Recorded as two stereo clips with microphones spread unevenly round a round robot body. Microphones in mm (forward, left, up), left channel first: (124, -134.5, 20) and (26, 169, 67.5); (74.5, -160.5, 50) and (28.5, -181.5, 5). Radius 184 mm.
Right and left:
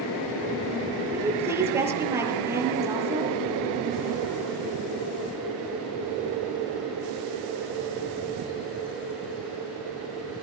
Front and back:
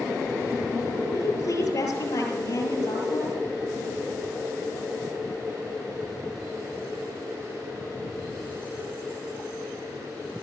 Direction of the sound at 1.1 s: 25° left.